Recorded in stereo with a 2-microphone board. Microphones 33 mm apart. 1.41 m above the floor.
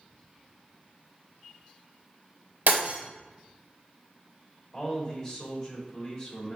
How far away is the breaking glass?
About 2 m.